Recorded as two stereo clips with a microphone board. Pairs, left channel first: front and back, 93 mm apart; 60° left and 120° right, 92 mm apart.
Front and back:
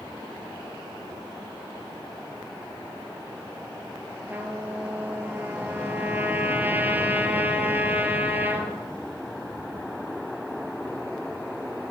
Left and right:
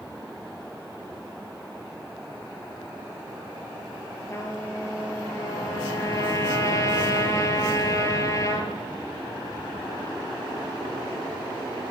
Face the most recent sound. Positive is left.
turn(degrees=110)